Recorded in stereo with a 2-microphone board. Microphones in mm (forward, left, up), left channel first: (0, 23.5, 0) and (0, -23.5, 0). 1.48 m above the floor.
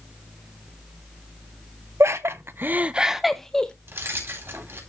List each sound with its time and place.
2.0 s laughter: 75° right (ahead or behind), 1.2 m; by 3.7 s 15° left (ahead or behind), 1.4 m
3.9 s keys jangling: 60° right (ahead or behind), 3.5 m